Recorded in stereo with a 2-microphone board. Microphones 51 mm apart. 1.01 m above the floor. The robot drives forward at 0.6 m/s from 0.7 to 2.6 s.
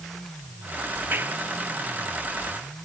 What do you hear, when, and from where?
1.1 s a clap: 45° right (ahead or behind)